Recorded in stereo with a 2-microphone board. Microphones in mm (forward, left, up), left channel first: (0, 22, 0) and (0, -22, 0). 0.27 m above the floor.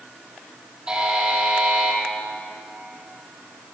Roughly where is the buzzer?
Centre.